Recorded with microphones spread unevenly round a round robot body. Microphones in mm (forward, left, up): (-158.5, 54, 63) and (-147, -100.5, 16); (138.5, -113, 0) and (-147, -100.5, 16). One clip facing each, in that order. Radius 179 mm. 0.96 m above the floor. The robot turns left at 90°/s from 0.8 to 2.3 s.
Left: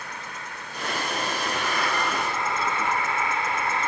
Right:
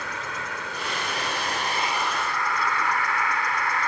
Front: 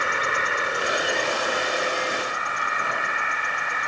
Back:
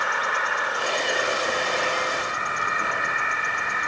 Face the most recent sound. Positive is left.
turn(degrees=160)